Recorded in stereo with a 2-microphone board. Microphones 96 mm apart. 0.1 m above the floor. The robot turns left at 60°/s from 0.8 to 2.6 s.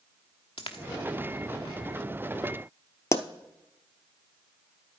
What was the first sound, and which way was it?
A dropped coin, 75° left (ahead or behind).